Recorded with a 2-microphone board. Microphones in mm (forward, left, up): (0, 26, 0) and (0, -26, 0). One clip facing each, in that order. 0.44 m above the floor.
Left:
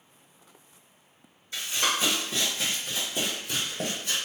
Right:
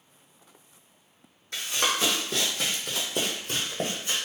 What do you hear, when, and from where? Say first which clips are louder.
1.5 s running footsteps: right 1 dB; 55° right (ahead or behind), 1.4 m; by 4.2 s 25° right (ahead or behind), 1.1 m